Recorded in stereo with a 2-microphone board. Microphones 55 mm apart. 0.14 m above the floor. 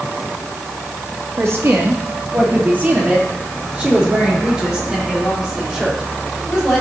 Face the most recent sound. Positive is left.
turn(degrees=-5)  # may be behind; listen again after turning